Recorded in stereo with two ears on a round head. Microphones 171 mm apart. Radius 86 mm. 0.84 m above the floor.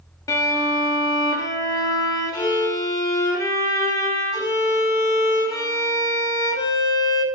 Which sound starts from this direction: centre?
A violin, at 0.3 s.